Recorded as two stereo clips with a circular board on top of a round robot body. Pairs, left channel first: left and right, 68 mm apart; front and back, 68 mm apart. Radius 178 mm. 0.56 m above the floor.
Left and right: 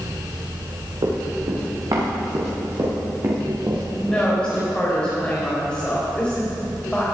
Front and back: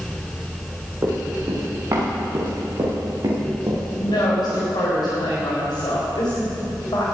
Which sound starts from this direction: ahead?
A woman speaking, at 4.0 s.